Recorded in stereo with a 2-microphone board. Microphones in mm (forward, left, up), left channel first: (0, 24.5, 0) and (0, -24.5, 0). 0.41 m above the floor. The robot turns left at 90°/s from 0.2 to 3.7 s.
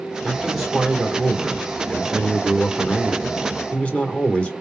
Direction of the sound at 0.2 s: 10° left (ahead or behind).